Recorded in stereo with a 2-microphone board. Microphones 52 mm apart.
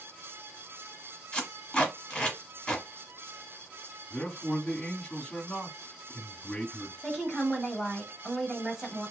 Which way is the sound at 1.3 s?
15° left (ahead or behind).